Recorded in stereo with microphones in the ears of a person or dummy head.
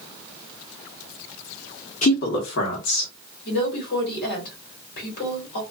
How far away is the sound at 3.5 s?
About 1.4 m.